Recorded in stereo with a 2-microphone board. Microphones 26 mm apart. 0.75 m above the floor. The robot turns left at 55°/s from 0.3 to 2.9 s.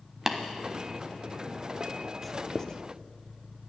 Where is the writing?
Centre (ahead or behind), 0.5 m; by 2.8 s 30° left (ahead or behind), 0.5 m.